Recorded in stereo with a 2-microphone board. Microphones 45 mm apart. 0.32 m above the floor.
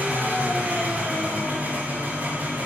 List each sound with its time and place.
0.0 s an engine running: 35° right (ahead or behind), 1.8 m